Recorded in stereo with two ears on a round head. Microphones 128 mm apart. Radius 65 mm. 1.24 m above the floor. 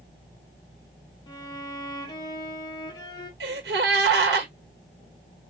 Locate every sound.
1.3 s a violin: 30° left (ahead or behind), 1.7 m
3.4 s a gasp: 90° right, 1.4 m